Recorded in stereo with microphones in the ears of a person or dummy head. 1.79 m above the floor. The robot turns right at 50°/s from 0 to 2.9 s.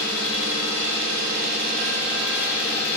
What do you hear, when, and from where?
0.0 s an engine running: 130° right, 5.5 m; by 3.0 s 15° left, 5.5 m